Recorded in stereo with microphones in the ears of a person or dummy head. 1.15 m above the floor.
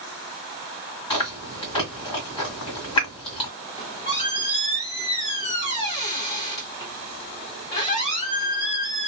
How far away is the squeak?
About 1.0 m.